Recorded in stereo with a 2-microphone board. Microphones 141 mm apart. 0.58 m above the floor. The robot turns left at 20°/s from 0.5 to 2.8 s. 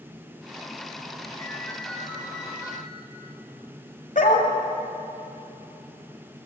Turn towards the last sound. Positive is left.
turn(degrees=70)  # may be behind; listen again after turning